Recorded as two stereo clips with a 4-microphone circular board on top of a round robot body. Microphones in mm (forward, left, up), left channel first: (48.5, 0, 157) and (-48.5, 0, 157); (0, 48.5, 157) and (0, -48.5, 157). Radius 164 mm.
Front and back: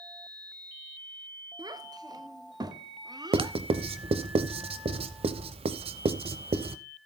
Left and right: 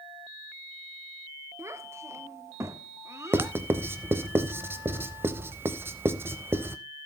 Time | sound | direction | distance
1.6 | a child speaking | 145° right | 1.3 m
3.3 | writing | 155° right | 0.7 m